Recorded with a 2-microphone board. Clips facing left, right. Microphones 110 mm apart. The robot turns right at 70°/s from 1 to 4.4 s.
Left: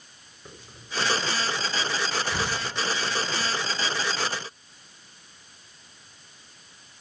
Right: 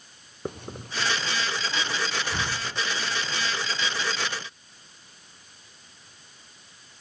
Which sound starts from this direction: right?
A hiss, at 0.5 s.